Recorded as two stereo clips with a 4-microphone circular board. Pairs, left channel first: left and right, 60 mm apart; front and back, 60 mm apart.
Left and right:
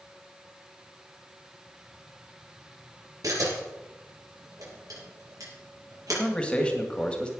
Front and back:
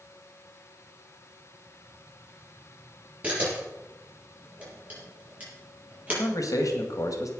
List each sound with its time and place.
3.2 s a camera shutter: 115° right, 6 m
6.1 s a man speaking: 20° left, 2.5 m